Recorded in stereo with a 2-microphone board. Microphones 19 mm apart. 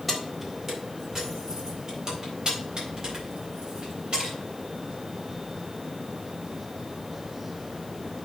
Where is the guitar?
No guitar in this recording.